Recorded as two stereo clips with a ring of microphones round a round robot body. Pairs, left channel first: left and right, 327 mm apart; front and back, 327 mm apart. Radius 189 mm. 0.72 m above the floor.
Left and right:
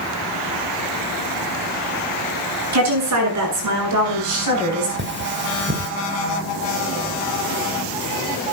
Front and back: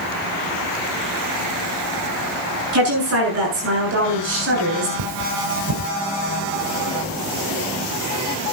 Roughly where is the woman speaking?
Behind right.